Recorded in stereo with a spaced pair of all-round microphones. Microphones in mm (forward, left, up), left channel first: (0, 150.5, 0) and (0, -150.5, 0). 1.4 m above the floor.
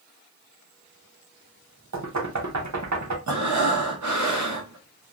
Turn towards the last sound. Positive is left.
turn(degrees=-70)  # may be behind; listen again after turning